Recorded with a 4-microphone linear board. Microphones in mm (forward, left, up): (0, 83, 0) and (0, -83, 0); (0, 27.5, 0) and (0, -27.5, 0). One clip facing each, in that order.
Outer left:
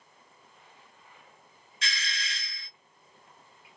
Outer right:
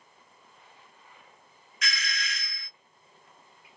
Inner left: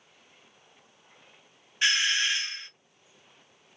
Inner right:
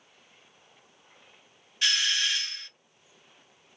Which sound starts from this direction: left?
A doorbell, at 1.8 s.